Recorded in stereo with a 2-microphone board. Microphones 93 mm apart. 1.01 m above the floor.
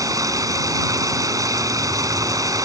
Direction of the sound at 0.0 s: 40° right (ahead or behind).